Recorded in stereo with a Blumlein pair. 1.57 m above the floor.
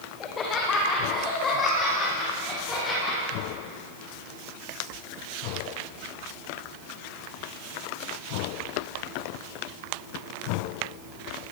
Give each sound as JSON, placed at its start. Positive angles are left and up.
{"t": 0.2, "sound": "laughter", "azimuth_deg": 25, "distance_m": 1.7}